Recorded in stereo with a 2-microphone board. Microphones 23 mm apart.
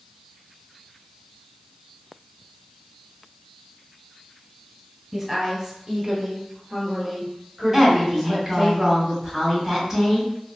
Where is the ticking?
No ticking in this recording.